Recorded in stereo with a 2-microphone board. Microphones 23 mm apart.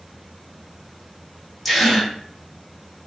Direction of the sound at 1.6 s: Centre (ahead or behind).